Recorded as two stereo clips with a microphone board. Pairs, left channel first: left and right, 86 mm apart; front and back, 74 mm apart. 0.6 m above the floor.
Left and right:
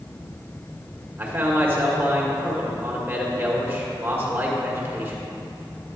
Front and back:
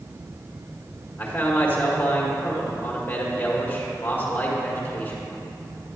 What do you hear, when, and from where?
1.2 s a man speaking: 45° right, 1.5 m